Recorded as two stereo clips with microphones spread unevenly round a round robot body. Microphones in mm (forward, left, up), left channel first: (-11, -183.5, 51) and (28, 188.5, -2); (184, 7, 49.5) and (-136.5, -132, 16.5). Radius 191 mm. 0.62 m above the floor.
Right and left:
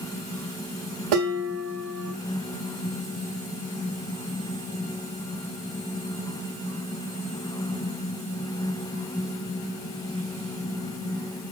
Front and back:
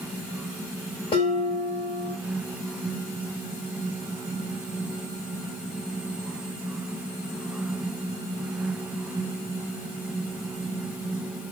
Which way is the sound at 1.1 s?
100° left.